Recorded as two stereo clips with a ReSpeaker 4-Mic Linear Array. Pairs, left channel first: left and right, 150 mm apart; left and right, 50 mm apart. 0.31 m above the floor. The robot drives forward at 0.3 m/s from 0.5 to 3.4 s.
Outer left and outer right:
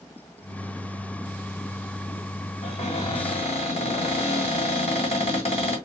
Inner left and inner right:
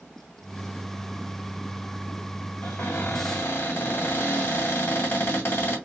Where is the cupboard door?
45° left (ahead or behind), 2 m.